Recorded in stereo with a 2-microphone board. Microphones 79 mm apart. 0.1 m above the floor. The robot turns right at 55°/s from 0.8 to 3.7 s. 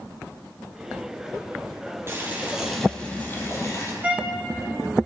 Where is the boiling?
40° right, 3 m; by 3.9 s 50° left, 3 m.